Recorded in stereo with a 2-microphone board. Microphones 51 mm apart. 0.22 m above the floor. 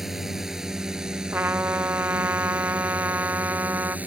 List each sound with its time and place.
0.0 s a drone: 10° right (ahead or behind); by 4.1 s 30° right (ahead or behind)
1.3 s a trumpet: 45° right (ahead or behind)